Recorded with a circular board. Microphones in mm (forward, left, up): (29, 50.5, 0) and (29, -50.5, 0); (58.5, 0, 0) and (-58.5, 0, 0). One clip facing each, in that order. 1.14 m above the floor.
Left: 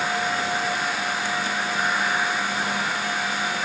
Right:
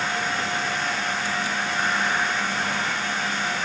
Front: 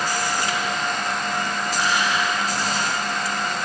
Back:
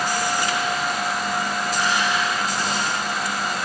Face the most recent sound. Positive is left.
No sound to turn to.